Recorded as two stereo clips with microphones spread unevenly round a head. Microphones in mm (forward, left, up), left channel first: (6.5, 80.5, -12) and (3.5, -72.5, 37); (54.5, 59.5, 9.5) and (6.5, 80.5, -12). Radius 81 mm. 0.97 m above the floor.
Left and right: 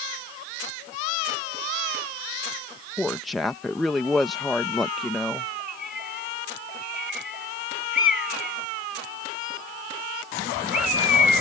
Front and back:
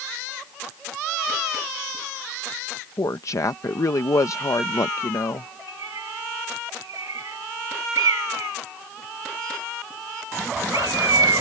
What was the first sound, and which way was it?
A woman speaking, 10° left.